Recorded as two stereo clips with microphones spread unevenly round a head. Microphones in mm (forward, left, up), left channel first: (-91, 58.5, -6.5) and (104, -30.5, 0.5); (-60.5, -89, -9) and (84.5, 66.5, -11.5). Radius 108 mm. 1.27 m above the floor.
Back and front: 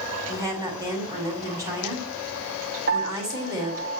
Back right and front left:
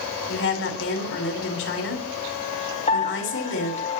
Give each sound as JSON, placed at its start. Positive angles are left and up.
{"t": 0.3, "sound": "a woman speaking", "azimuth_deg": -100, "distance_m": 7.5}
{"t": 2.9, "sound": "a piano", "azimuth_deg": -75, "distance_m": 5.0}